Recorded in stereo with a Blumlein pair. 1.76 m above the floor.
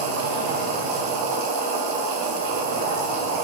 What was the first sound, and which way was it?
A machine running, 45° right.